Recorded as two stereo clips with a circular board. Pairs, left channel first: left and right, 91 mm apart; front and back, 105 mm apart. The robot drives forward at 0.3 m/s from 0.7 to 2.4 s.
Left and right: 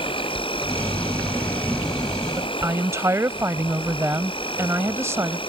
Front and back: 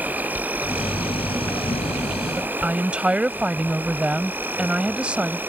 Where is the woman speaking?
110° right.